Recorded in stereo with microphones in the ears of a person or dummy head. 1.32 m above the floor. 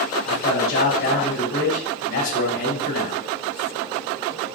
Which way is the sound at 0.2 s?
70° left (ahead or behind).